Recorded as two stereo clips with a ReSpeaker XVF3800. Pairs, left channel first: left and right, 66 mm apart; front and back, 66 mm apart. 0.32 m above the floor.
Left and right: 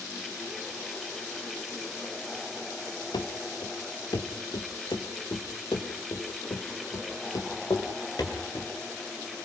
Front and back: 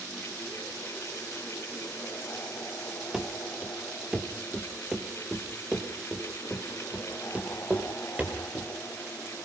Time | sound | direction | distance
3.1 | running footsteps | 95° left | 3 m